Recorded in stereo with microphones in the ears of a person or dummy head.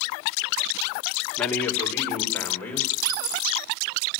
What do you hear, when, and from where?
1.4 s a man speaking: 10° left (ahead or behind), 2.5 m; by 2.9 s 15° left (ahead or behind), 5 m
3.0 s a dropped coin: 75° right (ahead or behind), 2.5 m